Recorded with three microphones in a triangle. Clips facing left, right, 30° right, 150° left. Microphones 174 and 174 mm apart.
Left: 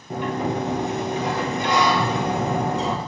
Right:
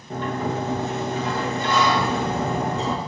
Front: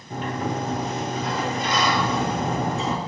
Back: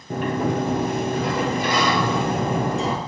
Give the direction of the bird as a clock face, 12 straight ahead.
9 o'clock.